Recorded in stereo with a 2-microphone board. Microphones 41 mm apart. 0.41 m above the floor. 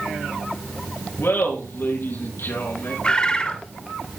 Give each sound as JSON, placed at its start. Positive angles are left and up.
{"t": 1.2, "sound": "laughter", "side_deg": 75, "distance_m": 5.0}
{"t": 3.0, "sound": "a bird", "side_deg": 25, "distance_m": 1.4}